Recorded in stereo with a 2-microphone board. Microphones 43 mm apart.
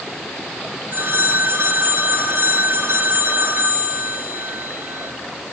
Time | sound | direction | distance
0.9 | a phone ringing | 60° right (ahead or behind) | 7 m